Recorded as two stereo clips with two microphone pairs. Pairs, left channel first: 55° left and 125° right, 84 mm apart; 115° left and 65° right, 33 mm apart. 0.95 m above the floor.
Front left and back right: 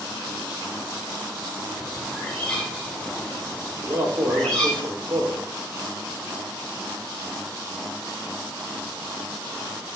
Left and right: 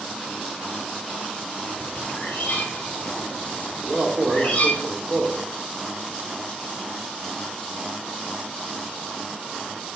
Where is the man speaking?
105° right, 1.3 m.